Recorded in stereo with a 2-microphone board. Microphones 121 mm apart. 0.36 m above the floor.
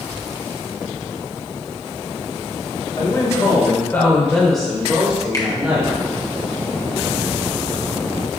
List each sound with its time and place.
3.0 s a man speaking: 30° left (ahead or behind), 2.0 m; by 5.9 s 25° right (ahead or behind), 2 m
5.3 s a finger snap: 30° left (ahead or behind), 1.2 m